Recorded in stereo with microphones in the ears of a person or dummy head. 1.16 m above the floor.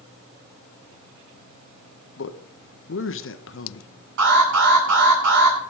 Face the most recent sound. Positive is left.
turn(degrees=-65)  # may be behind; listen again after turning